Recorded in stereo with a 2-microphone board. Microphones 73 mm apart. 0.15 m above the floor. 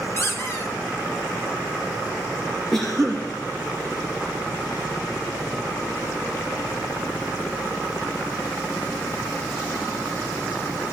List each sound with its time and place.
0.2 s a squeak: 35° left (ahead or behind), 1.8 m
2.7 s a cough: 5° left (ahead or behind), 2.5 m